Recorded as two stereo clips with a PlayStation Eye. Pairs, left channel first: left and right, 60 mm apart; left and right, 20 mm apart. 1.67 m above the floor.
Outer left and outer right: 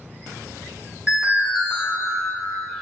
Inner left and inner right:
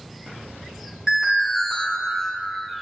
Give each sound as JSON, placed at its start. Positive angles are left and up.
{"t": 1.1, "sound": "an alarm", "side_deg": -25, "distance_m": 3.5}